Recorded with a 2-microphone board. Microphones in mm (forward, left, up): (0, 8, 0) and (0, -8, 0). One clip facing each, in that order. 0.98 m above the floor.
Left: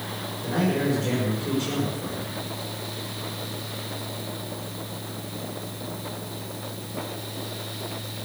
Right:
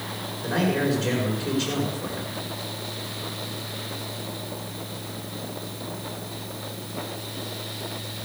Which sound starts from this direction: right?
A man speaking, at 0.4 s.